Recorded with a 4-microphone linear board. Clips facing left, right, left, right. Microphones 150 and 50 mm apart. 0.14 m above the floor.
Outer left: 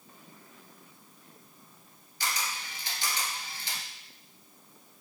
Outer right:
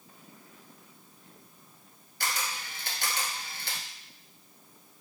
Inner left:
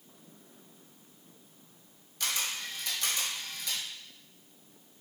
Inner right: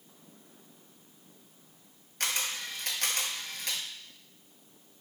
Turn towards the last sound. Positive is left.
turn(degrees=-55)  # may be behind; listen again after turning